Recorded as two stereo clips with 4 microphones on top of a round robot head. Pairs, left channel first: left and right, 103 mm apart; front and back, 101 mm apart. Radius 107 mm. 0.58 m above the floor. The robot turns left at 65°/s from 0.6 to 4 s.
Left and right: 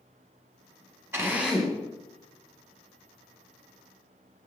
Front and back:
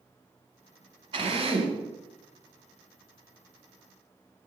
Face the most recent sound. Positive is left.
turn(degrees=25)